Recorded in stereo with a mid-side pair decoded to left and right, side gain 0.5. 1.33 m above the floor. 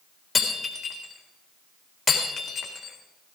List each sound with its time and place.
0.3 s breaking glass: 25° left, 3.5 m